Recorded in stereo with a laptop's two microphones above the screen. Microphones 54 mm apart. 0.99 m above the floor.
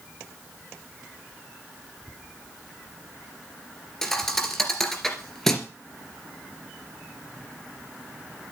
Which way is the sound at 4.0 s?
5° left (ahead or behind).